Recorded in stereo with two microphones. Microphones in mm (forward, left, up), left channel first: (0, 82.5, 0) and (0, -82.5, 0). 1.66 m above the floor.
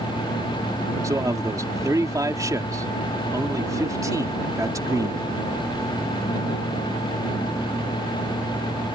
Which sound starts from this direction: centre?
A man speaking, at 1.0 s.